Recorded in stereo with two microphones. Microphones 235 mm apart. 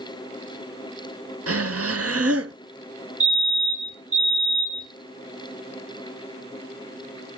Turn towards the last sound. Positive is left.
turn(degrees=-65)  # may be behind; listen again after turning